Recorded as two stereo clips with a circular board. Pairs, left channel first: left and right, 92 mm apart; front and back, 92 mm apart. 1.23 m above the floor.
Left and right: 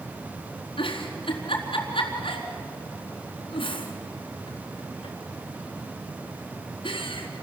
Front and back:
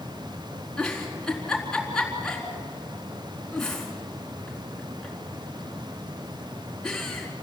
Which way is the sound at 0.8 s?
85° left.